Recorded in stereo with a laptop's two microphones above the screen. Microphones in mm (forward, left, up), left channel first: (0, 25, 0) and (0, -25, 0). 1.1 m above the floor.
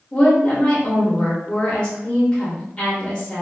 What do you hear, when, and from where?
0.1 s a woman speaking: 20° left (ahead or behind), 0.7 m